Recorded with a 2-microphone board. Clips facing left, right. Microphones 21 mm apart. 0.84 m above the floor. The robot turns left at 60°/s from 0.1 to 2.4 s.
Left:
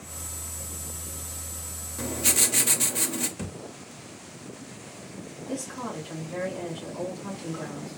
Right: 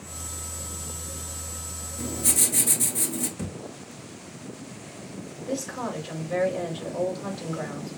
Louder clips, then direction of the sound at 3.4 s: Right 2 dB; 15° left (ahead or behind).